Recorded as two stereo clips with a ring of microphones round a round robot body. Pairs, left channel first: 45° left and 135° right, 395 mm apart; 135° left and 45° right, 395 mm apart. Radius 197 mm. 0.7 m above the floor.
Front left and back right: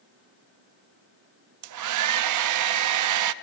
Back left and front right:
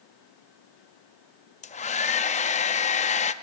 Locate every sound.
1.6 s a hair dryer: 160° right, 0.5 m